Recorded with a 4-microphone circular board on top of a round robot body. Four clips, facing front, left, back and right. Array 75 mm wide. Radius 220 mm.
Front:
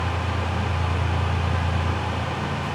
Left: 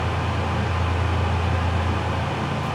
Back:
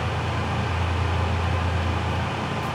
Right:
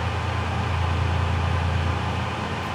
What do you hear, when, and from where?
Only background noise.